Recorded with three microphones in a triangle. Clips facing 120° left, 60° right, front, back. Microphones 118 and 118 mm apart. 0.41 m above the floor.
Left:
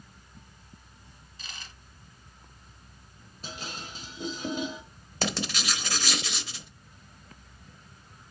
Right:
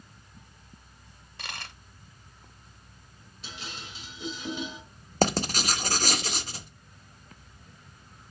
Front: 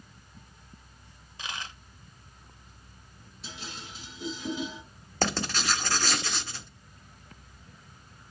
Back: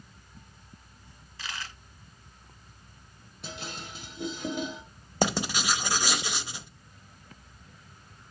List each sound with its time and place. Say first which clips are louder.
1.4 s a dropped coin: right 6 dB, front 1 dB; 65° right, 0.7 m
3.4 s dishes clattering: left 3 dB, back 3 dB; 160° left, 1.3 m
5.2 s writing: right 6 dB, back 2 dB; 105° right, 0.8 m